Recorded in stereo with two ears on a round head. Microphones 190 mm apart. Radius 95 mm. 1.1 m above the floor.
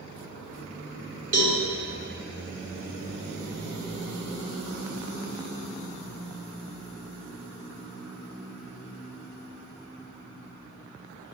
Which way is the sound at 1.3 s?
35° right (ahead or behind).